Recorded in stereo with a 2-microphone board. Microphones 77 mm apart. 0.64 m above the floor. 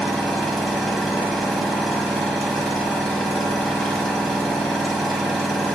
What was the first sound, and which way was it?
An engine running, 5° left (ahead or behind).